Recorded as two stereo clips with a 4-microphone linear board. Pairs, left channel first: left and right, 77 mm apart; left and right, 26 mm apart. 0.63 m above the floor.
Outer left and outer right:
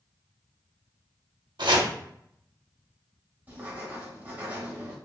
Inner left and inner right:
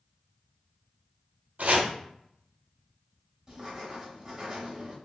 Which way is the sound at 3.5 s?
20° right (ahead or behind).